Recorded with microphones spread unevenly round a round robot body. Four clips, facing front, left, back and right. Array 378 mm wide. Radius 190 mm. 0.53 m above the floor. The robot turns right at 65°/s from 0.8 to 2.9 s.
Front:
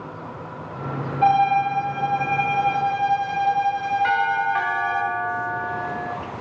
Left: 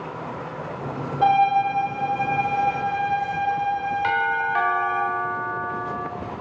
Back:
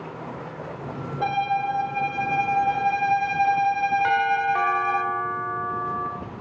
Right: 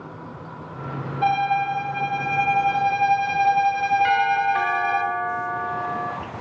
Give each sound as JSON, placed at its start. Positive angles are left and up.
{"t": 1.2, "sound": "a violin", "azimuth_deg": 140, "distance_m": 0.7}
{"t": 4.0, "sound": "a doorbell", "azimuth_deg": 180, "distance_m": 1.4}